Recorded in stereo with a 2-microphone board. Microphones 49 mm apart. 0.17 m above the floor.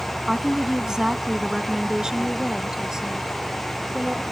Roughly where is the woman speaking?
Centre.